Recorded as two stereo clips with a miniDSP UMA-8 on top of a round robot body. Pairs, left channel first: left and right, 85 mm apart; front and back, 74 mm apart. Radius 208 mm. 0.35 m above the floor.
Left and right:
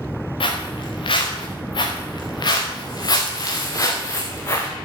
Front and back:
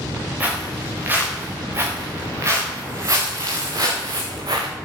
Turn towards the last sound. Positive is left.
turn(degrees=150)